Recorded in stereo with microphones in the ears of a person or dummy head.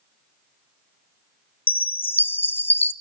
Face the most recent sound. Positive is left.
turn(degrees=0)  # may be behind; listen again after turning